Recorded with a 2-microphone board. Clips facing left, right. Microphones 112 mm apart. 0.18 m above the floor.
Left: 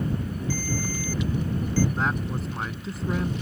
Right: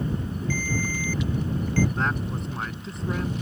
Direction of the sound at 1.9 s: 5° left (ahead or behind).